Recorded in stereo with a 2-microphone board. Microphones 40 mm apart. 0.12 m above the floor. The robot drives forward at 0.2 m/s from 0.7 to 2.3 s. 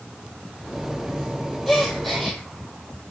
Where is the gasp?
5° left (ahead or behind), 1.4 m; by 2.4 s centre (ahead or behind), 1.5 m.